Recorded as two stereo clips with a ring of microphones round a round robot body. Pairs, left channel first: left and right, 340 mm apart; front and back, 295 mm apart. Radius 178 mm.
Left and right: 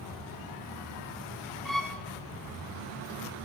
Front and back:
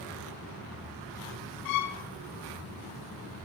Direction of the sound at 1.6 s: Straight ahead.